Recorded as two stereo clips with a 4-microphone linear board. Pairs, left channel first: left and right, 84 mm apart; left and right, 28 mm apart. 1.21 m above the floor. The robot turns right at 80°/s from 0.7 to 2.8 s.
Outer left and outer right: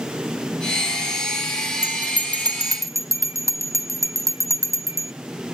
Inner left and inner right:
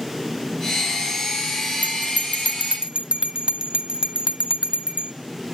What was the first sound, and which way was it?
A bell, 50° right (ahead or behind).